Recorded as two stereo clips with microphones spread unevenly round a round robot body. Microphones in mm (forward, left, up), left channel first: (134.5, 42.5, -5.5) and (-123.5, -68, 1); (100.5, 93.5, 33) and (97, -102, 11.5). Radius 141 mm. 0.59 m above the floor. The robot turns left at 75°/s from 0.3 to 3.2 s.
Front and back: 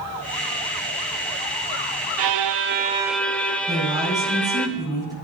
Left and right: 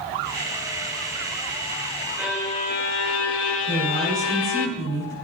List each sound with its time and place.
2.2 s a violin: 175° right, 0.8 m; by 4.7 s 110° left, 0.8 m
3.7 s a woman speaking: 80° right, 8 m